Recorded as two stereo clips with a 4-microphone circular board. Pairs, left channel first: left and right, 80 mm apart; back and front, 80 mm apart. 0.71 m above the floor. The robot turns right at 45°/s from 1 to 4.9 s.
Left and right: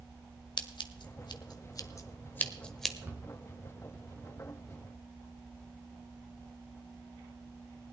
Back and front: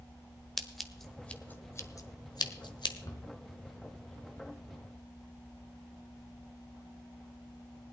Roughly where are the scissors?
Left.